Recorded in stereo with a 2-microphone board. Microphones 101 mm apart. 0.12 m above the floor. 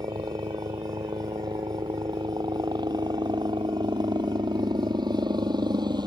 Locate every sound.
0.0 s a helicopter: 45° right (ahead or behind)